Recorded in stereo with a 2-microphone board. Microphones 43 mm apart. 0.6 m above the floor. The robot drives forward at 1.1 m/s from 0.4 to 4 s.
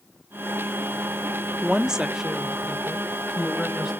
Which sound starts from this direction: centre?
A woman speaking, at 1.6 s.